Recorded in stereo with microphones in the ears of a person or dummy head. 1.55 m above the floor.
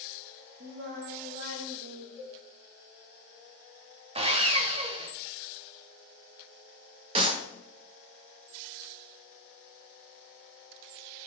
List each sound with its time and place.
0.6 s singing: 65° right (ahead or behind), 1.7 m
2.2 s a cowbell: 75° left (ahead or behind), 1.8 m
4.2 s sawing: 25° right (ahead or behind), 0.7 m
7.2 s a clap: 30° right (ahead or behind), 1.3 m